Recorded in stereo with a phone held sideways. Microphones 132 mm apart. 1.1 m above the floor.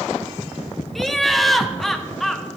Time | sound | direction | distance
0.9 | laughter | centre (ahead or behind) | 0.7 m